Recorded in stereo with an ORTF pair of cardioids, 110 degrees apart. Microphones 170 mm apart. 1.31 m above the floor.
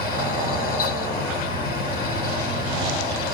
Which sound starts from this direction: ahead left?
A fan, at 0.0 s.